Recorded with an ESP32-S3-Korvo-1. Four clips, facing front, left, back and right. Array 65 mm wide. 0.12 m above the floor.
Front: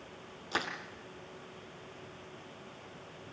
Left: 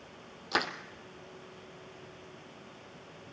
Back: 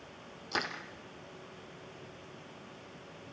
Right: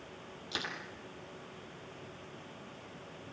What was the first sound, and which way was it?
Crushing, 85° left.